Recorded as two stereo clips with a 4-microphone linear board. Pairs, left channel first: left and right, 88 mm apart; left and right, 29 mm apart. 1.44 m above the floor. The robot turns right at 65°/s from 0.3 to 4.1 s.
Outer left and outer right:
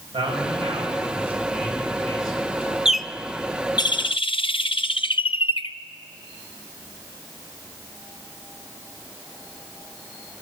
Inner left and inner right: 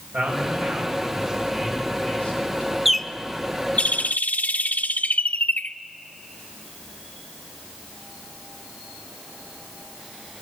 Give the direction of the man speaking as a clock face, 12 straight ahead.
3 o'clock.